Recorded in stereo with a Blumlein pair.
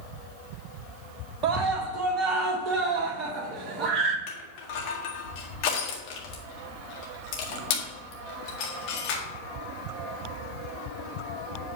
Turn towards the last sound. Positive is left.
turn(degrees=45)